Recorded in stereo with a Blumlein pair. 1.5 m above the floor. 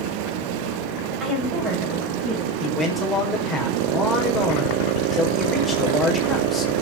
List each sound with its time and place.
1.2 s a woman speaking: 20° right, 8.5 m
2.6 s a man speaking: 5° left, 5.5 m